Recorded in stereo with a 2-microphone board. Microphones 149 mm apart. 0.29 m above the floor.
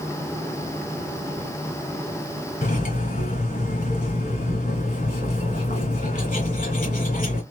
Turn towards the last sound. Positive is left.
turn(degrees=55)  # may be behind; listen again after turning